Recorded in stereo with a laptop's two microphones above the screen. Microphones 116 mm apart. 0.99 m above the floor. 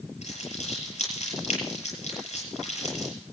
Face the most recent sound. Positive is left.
turn(degrees=75)  # may be behind; listen again after turning